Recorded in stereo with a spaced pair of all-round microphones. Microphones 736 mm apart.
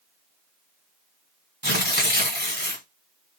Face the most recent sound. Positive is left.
turn(degrees=-15)  # may be behind; listen again after turning